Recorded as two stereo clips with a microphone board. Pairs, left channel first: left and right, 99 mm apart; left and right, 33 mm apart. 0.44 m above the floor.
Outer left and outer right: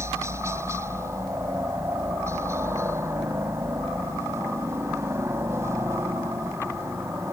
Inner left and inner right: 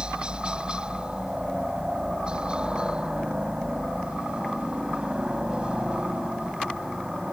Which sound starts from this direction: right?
A helicopter, at 0.0 s.